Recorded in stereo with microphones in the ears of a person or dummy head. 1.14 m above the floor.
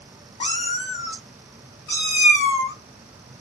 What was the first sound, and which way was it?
A cat meowing, 30° left (ahead or behind).